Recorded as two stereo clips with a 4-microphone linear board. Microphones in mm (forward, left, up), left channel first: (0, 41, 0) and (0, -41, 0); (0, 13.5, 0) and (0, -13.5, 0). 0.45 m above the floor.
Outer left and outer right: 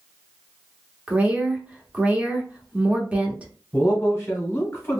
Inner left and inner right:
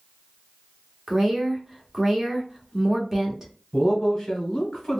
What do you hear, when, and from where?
1.1 s a woman speaking: 20° right (ahead or behind), 0.7 m
3.7 s a man speaking: 25° left (ahead or behind), 1.1 m